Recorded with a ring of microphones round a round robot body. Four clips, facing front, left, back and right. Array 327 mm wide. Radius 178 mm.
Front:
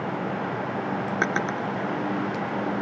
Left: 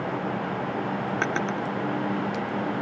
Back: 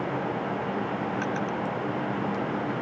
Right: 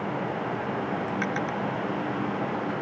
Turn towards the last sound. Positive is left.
turn(degrees=35)